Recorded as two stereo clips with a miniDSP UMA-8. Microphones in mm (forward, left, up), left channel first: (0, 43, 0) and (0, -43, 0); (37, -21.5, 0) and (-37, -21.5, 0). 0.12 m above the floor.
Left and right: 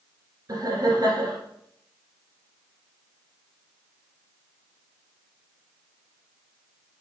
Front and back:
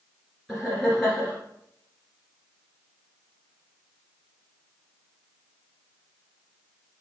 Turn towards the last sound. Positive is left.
turn(degrees=-90)